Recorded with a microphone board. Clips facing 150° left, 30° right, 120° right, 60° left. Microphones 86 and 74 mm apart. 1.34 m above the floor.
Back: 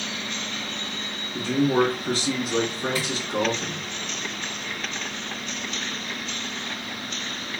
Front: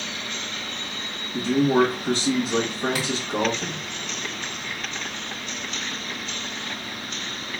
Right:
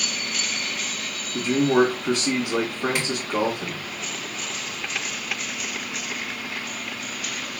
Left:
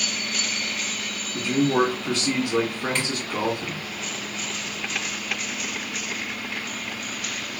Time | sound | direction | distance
1.3 | a man speaking | 60° right | 1.4 m
3.0 | tapping | 40° right | 1.2 m